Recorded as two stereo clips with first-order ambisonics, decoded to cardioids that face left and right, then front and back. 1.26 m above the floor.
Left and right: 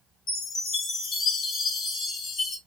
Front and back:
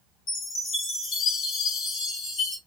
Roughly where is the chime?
Ahead left.